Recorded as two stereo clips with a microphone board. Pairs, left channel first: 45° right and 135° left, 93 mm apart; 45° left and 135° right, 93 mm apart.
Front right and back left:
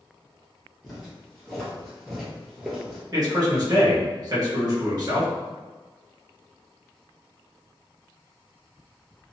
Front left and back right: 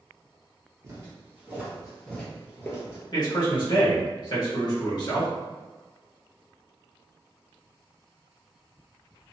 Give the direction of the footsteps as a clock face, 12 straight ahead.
4 o'clock.